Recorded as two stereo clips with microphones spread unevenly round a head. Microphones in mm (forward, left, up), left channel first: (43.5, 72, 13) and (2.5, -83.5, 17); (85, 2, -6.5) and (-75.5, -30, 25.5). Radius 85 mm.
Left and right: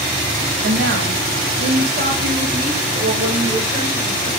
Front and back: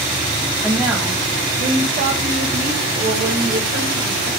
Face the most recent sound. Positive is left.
turn(degrees=-175)